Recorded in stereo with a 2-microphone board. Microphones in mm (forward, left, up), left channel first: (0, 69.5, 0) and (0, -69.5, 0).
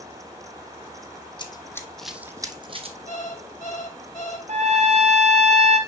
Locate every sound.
1.4 s running footsteps: 35° left (ahead or behind), 1.0 m; by 3.0 s 45° right (ahead or behind), 1.0 m
3.1 s an alarm clock: 55° left (ahead or behind), 2 m
4.5 s a trumpet: 55° right (ahead or behind), 1.2 m